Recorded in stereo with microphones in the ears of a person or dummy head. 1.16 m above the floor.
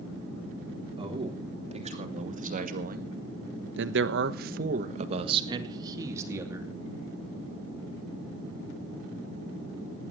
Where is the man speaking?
35° right (ahead or behind), 3.5 m; by 6.7 s 10° right (ahead or behind), 3 m.